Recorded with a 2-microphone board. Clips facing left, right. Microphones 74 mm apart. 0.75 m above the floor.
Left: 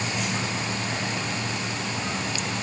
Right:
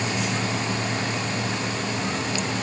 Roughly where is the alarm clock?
I don't hear an alarm clock.